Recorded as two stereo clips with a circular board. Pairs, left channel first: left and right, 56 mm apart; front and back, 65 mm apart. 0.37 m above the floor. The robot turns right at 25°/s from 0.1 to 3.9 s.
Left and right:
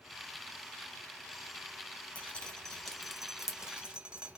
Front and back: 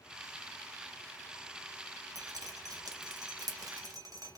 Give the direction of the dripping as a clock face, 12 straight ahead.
7 o'clock.